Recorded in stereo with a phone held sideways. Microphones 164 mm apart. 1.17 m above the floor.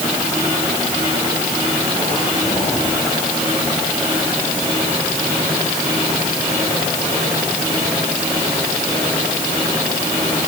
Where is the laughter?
I don't hear laughter.